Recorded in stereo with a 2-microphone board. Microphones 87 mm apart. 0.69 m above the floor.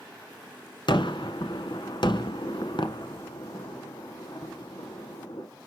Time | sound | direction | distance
0.9 | a gunshot | 60° left (ahead or behind) | 1.2 m